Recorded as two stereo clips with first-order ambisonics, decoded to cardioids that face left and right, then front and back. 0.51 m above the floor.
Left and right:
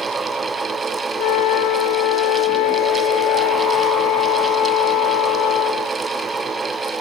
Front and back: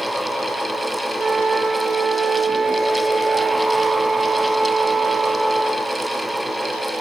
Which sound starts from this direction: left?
A flute, at 1.2 s.